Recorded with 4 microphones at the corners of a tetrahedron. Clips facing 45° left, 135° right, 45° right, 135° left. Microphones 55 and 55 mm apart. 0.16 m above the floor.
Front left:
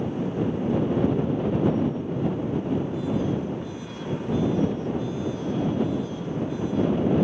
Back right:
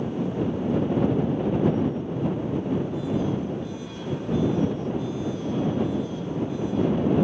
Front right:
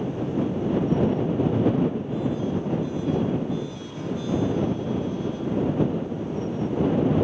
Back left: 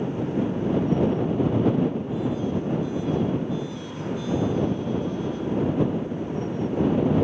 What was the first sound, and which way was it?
Only background noise.